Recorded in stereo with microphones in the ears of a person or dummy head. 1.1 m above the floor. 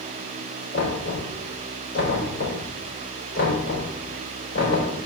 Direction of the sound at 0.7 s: 45° left (ahead or behind).